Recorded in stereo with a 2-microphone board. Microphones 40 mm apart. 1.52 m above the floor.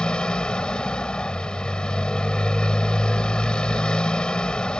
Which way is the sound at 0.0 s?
20° left (ahead or behind).